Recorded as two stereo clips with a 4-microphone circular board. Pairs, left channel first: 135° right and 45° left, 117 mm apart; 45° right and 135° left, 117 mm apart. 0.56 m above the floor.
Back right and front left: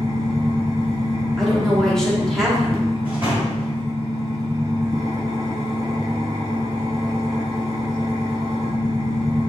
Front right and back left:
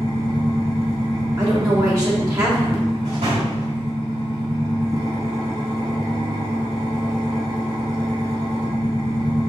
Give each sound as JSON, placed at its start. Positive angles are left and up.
{"t": 0.0, "sound": "an engine running", "azimuth_deg": 100, "distance_m": 1.3}
{"t": 1.4, "sound": "a woman speaking", "azimuth_deg": 140, "distance_m": 1.1}
{"t": 3.0, "sound": "a door slam", "azimuth_deg": 120, "distance_m": 1.8}